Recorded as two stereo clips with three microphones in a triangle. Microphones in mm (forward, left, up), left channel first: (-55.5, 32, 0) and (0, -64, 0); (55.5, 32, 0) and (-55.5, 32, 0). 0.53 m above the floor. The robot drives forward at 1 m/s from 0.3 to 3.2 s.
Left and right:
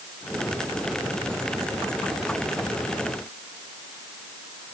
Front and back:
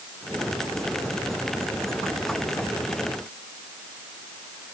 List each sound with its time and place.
Only background noise.